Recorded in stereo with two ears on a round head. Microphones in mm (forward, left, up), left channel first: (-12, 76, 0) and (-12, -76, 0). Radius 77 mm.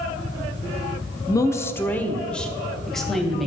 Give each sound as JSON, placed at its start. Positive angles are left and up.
{"t": 1.3, "sound": "a woman speaking", "side_deg": 20, "distance_m": 0.7}